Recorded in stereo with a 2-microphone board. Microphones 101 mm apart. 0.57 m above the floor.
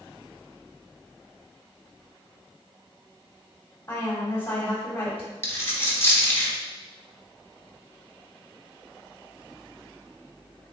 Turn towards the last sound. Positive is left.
turn(degrees=25)  # may be behind; listen again after turning